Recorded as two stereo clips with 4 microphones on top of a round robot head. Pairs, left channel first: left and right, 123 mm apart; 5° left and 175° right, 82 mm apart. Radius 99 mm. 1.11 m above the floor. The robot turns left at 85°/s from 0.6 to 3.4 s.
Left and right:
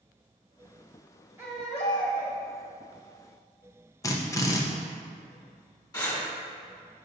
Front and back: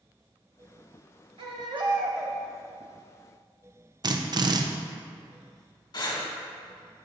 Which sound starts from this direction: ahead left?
Breathing, at 5.9 s.